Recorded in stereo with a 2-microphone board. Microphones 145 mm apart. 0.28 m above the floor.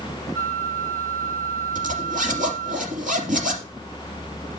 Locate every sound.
0.3 s a flute: 15° left (ahead or behind), 0.8 m
1.8 s a zipper: 75° right (ahead or behind), 3.5 m